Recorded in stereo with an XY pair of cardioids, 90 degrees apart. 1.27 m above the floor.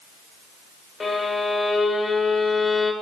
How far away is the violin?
About 2.5 m.